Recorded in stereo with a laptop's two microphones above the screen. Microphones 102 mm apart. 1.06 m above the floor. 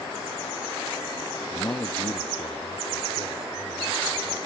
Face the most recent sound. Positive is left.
turn(degrees=45)  # may be behind; listen again after turning